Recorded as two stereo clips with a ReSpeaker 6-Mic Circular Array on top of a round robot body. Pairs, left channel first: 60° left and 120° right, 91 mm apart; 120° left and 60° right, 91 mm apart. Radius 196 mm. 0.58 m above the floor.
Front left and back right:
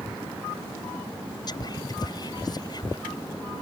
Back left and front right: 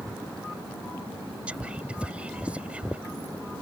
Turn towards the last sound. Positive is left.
turn(degrees=15)